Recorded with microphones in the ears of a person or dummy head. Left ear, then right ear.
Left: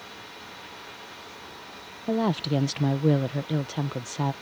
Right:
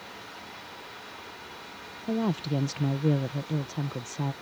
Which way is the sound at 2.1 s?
30° left (ahead or behind).